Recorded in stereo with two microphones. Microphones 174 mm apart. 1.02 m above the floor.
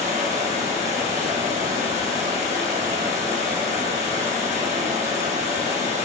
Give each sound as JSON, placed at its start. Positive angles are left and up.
{"t": 0.0, "sound": "running water", "side_deg": -40, "distance_m": 1.2}